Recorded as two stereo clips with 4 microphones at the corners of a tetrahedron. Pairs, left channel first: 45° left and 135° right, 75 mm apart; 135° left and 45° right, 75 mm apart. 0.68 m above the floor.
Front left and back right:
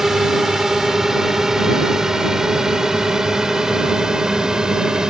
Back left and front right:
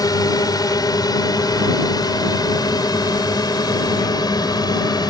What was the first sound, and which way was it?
A drone, 140° left.